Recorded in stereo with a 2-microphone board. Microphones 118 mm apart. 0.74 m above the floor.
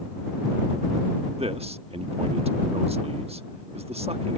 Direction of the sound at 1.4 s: 60° right (ahead or behind).